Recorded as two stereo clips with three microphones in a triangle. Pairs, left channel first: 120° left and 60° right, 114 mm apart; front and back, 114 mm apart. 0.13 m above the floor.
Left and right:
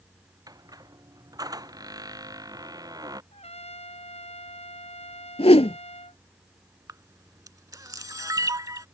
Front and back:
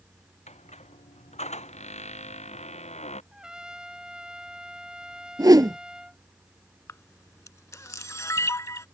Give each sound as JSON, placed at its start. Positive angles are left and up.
{"t": 0.5, "sound": "a squeak", "azimuth_deg": -5}
{"t": 3.3, "sound": "a trumpet", "azimuth_deg": 95}
{"t": 5.4, "sound": "a whoosh", "azimuth_deg": 130}
{"t": 6.9, "sound": "a camera shutter", "azimuth_deg": -40}